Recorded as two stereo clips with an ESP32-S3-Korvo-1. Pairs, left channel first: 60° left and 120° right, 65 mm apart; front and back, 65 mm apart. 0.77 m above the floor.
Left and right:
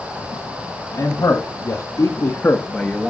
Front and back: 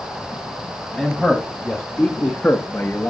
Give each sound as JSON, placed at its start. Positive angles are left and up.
{"t": 0.9, "sound": "a man speaking", "azimuth_deg": 90, "distance_m": 2.0}